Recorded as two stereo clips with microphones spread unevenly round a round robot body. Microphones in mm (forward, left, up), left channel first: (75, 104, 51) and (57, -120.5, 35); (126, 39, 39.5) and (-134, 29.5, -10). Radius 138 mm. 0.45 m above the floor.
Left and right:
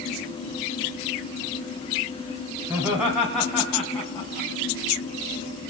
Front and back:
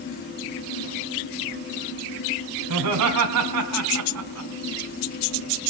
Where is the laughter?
175° right, 3.5 m; by 4.5 s 165° left, 3.5 m.